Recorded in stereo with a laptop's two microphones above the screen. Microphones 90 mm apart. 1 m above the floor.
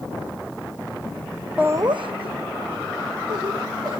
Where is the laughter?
15° right (ahead or behind), 0.6 m; by 4.0 s 55° right (ahead or behind), 3.5 m.